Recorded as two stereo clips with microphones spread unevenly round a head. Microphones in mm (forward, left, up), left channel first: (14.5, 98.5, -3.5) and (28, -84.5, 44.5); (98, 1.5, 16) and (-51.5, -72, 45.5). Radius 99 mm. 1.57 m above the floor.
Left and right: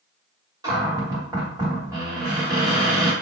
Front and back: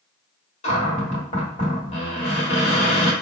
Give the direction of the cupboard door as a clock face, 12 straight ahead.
1 o'clock.